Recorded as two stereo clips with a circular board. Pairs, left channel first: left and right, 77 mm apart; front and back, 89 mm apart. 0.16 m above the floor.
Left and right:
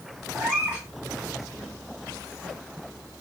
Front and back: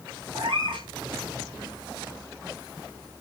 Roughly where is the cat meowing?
Behind.